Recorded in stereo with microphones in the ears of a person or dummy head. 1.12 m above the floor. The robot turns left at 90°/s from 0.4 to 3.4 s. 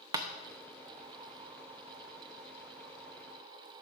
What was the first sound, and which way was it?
Tapping, 20° right (ahead or behind).